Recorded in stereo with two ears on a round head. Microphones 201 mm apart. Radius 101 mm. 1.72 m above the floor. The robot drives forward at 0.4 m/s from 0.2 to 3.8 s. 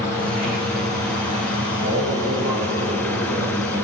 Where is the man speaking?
55° right (ahead or behind), 6 m; by 3.8 s 50° right (ahead or behind), 6.5 m.